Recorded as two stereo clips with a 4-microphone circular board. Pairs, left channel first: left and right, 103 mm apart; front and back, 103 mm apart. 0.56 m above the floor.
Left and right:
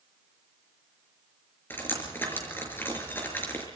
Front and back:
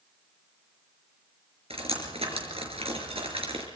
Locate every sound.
1.7 s dripping: 160° left, 5 m